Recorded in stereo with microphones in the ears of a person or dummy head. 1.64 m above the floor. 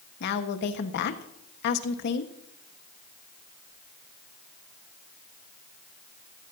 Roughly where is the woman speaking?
Left.